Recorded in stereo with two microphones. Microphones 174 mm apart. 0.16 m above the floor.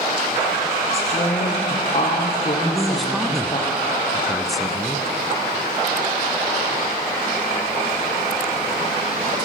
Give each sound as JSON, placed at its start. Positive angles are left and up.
{"t": 0.9, "sound": "a woman speaking", "side_deg": 40, "distance_m": 5.0}
{"t": 2.6, "sound": "a man speaking", "side_deg": 0, "distance_m": 1.2}